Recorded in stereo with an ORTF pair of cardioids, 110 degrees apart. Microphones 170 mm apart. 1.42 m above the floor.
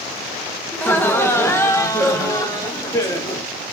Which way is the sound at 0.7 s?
10° left.